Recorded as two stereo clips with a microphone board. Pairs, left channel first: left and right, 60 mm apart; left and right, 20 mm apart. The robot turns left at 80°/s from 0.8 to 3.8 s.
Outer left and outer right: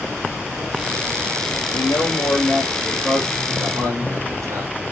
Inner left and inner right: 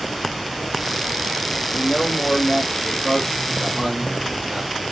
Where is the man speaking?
100° left, 5.5 m; by 4.8 s 65° right, 5.5 m.